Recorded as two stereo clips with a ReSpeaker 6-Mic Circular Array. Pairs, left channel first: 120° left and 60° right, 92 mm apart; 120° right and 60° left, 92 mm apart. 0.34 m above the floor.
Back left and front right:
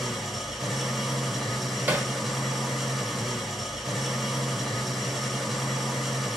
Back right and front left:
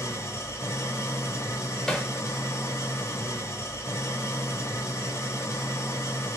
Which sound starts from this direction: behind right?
An engine running, at 0.0 s.